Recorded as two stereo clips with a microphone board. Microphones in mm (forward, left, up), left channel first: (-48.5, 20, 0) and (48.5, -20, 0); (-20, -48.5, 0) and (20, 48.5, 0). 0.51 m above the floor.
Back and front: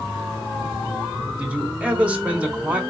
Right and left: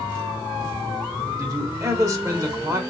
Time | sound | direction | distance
1.4 | a man speaking | 45° left | 1.1 m